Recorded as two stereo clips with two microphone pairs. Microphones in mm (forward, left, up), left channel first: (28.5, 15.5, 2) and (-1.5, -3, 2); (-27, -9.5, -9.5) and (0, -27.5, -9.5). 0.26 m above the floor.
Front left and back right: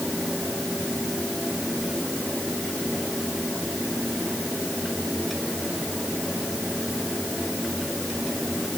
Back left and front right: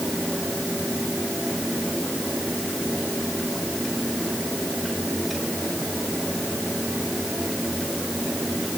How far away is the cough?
No cough in this recording.